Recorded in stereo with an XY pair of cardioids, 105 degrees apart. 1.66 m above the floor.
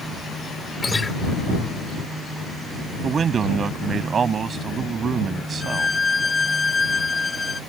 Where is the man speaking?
45° right.